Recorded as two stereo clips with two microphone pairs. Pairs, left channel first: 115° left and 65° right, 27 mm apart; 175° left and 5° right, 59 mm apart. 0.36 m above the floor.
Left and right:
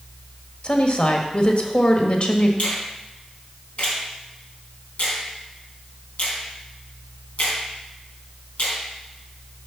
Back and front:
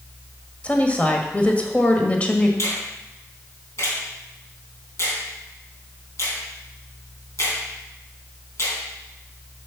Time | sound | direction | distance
0.6 | a woman speaking | 120° left | 1.5 m
2.6 | a finger snap | 145° left | 3.5 m